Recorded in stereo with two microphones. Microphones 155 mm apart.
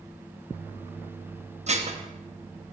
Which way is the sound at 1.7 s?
45° right (ahead or behind).